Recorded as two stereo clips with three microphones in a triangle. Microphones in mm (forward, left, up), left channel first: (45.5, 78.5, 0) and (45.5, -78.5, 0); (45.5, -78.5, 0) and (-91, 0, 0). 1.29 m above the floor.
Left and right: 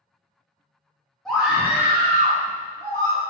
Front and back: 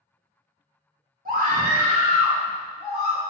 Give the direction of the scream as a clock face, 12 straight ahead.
6 o'clock.